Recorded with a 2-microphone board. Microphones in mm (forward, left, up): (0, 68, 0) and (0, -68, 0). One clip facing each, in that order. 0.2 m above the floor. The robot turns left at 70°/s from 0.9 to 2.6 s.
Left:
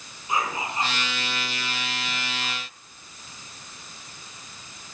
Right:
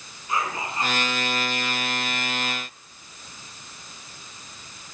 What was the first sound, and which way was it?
Whispering, 160° left.